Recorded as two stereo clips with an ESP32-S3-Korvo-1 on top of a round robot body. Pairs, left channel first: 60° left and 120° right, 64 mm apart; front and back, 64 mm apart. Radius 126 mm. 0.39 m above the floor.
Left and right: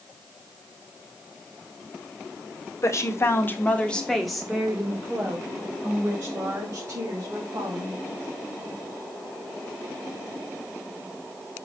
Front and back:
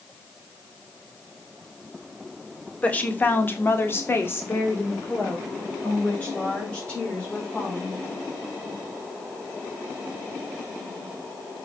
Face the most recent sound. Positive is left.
turn(degrees=-75)